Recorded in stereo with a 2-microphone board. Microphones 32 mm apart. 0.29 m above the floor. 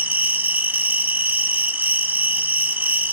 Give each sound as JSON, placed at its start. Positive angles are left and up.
{"t": 0.0, "sound": "an insect", "side_deg": -65, "distance_m": 1.0}